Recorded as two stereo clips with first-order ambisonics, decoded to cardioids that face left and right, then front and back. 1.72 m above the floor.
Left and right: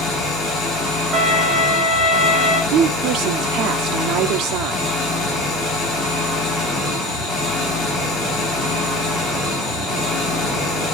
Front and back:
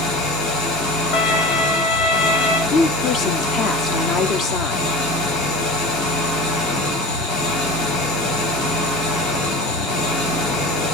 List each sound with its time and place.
0.0 s an engine running: 30° left, 6.5 m
1.1 s a violin: 10° right, 3.5 m
2.7 s a woman speaking: 55° right, 0.9 m